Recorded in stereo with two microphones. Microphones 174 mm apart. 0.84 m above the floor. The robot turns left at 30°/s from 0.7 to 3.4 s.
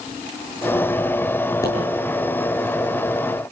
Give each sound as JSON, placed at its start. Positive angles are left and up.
{"t": 1.6, "sound": "a pop", "side_deg": 20, "distance_m": 10.0}